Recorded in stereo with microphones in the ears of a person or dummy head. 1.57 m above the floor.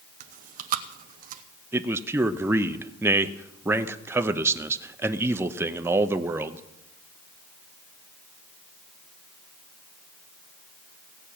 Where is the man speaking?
15° right (ahead or behind), 0.7 m.